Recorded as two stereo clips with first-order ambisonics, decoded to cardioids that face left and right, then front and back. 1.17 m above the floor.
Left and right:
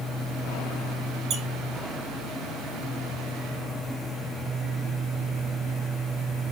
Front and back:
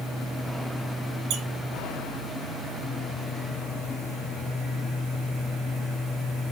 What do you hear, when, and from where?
1.3 s a squeak: 145° right, 0.6 m